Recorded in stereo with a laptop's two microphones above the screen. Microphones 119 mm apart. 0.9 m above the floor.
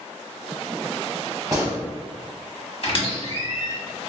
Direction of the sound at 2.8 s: 50° left (ahead or behind).